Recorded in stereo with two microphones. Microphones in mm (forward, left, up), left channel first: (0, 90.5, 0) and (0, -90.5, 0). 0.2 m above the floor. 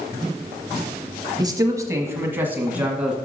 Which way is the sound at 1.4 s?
25° right (ahead or behind).